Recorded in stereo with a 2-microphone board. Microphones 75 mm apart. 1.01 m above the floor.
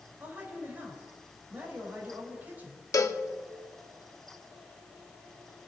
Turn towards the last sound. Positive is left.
turn(degrees=45)  # may be behind; listen again after turning